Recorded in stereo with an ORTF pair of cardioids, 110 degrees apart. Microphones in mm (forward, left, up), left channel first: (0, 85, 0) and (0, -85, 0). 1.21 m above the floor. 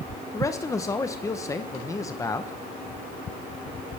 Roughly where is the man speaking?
Ahead.